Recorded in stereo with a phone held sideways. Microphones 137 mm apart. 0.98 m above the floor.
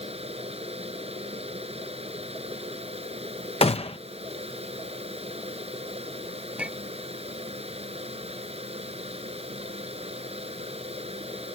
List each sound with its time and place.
0.0 s a fan: 50° right (ahead or behind)
3.6 s a gunshot: 45° left (ahead or behind)
6.6 s a clink: 10° right (ahead or behind)